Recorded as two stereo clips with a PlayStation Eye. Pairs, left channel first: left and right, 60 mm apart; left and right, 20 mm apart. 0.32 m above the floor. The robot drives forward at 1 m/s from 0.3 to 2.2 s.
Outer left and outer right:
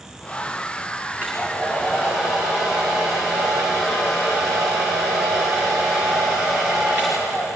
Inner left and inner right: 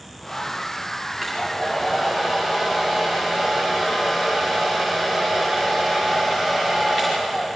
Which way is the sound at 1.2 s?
30° right (ahead or behind).